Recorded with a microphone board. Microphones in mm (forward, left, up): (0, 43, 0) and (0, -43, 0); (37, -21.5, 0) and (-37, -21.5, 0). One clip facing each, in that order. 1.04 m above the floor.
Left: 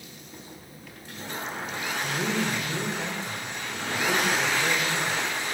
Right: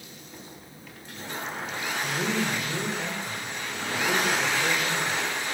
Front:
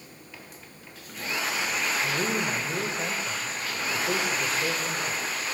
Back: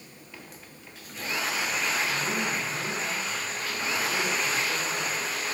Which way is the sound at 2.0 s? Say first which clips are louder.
Even, front 1 dB; straight ahead.